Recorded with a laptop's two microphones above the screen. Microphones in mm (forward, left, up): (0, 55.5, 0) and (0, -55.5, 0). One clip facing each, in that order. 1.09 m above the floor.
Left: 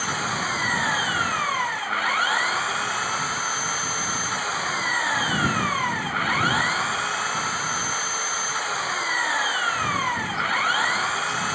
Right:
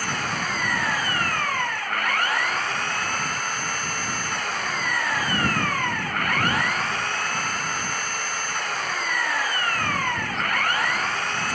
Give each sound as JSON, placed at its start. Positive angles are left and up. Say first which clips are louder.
{"t": 0.0, "sound": "an engine running", "louder": "left 1 dB", "side_deg": 5}